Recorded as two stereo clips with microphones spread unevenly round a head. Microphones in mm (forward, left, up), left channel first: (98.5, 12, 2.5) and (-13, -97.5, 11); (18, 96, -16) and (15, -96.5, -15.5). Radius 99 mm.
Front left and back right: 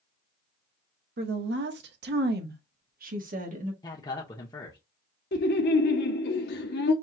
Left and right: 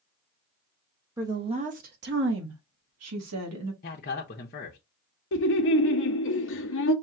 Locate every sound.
1.2 s a woman speaking: 170° right, 0.8 m; by 3.7 s 95° right, 1.6 m
3.8 s a man speaking: 95° left, 0.7 m
5.3 s laughter: 70° left, 0.9 m